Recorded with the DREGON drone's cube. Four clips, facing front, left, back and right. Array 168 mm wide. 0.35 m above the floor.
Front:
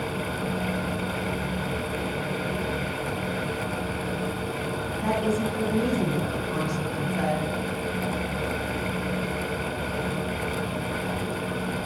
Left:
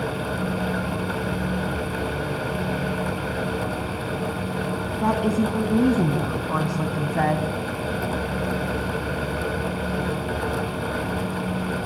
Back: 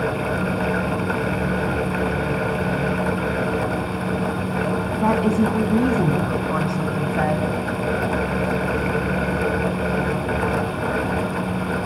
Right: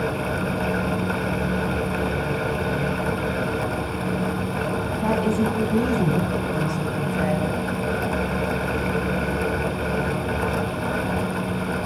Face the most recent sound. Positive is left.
turn(degrees=120)